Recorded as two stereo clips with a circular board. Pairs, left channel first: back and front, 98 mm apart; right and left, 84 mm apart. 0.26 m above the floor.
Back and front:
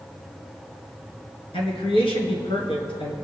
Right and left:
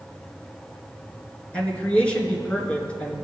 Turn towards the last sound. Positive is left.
turn(degrees=-165)